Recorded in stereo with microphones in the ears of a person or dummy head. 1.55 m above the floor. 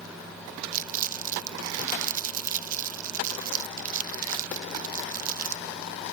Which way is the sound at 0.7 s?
35° right (ahead or behind).